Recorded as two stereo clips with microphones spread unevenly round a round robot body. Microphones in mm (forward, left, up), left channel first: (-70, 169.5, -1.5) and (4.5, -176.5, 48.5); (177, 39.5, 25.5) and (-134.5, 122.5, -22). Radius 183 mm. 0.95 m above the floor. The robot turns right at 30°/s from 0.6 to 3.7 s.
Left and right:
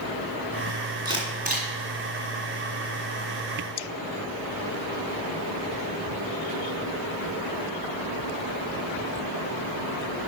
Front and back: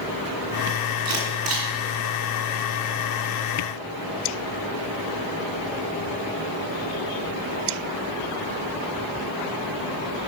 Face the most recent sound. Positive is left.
turn(degrees=-75)